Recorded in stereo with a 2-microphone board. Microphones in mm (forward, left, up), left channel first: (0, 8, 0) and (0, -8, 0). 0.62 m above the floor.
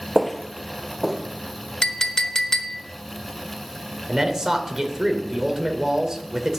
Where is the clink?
35° left (ahead or behind), 0.9 m.